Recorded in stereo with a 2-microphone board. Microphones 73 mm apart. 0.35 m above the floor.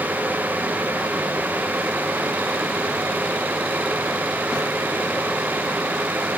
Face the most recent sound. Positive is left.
No sound to turn to.